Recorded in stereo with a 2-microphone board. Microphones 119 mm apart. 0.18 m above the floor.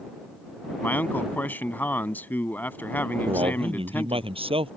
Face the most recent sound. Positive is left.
turn(degrees=-50)  # may be behind; listen again after turning